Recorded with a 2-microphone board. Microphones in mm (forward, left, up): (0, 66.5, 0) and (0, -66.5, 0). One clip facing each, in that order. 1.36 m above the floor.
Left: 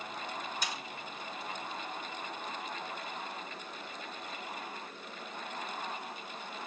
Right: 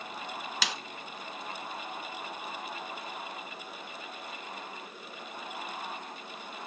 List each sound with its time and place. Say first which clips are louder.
0.6 s a snare drum: right 6 dB; 80° right, 1.1 m